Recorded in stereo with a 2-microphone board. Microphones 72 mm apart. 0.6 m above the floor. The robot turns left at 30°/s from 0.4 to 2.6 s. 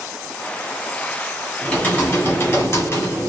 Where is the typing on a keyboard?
15° left (ahead or behind), 2.0 m; by 3.3 s 40° left (ahead or behind), 2.0 m.